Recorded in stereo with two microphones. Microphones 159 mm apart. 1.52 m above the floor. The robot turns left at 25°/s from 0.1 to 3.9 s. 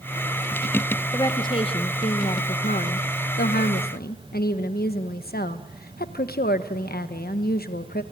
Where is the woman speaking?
155° left, 1.2 m; by 8.0 s 85° left, 1.2 m.